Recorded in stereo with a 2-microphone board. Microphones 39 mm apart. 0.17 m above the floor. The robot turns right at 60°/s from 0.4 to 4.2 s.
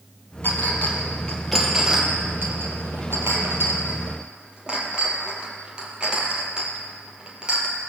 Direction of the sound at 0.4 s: 65° left (ahead or behind).